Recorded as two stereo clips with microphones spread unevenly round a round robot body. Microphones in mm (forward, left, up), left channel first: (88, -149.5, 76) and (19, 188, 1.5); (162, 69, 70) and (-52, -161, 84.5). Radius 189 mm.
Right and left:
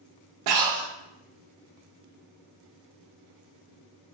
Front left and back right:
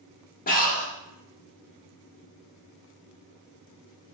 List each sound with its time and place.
0.5 s breathing: 110° left, 0.5 m